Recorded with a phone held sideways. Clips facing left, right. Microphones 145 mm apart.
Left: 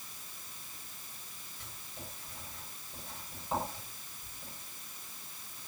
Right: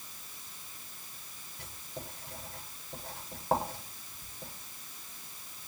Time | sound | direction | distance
1.6 | writing | 85° right | 6.5 m